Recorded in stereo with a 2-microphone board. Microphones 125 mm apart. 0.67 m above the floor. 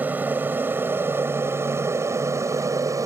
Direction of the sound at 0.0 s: 15° right (ahead or behind).